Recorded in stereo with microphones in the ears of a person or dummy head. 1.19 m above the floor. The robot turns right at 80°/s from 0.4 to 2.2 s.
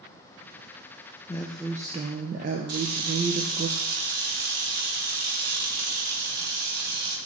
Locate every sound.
1.3 s a woman speaking: 155° left, 0.6 m; by 3.7 s 135° right, 0.6 m
2.7 s a camera shutter: 70° right (ahead or behind), 1.9 m